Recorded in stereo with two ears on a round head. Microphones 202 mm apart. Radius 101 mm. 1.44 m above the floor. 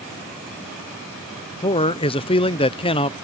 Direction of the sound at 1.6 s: 25° left (ahead or behind).